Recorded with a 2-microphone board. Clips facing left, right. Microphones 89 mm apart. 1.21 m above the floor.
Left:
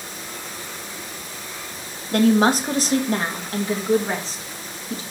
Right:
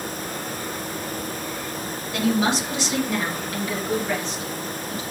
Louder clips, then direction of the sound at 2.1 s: Left 6 dB; 50° left (ahead or behind).